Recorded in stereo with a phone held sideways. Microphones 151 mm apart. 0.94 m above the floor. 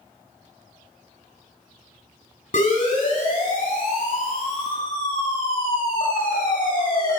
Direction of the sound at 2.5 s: 60° left (ahead or behind).